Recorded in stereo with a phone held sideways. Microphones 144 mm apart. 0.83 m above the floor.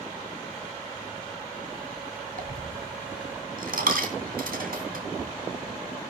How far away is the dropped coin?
About 3 m.